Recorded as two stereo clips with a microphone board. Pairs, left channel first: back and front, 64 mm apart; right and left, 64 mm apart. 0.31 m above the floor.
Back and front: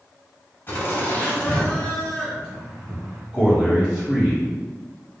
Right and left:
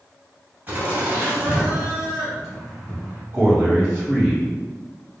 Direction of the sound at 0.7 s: 140° left.